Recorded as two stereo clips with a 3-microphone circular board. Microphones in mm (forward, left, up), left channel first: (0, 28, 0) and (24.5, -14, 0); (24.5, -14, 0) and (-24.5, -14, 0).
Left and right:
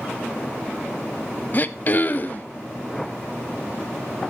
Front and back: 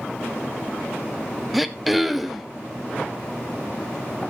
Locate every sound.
1.5 s throat clearing: 95° left, 0.7 m